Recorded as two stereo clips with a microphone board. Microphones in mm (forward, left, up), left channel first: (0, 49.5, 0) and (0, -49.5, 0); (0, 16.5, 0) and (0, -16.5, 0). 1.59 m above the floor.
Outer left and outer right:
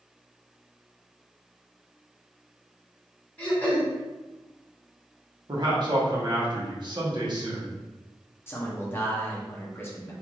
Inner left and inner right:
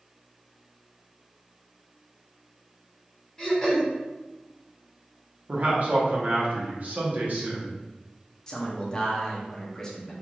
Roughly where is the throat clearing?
Centre.